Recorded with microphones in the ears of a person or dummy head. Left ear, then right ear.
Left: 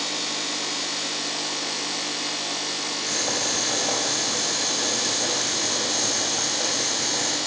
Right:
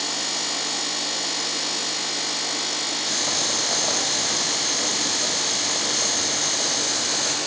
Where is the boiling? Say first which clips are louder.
Right 1 dB; 40° right (ahead or behind), 4.5 m.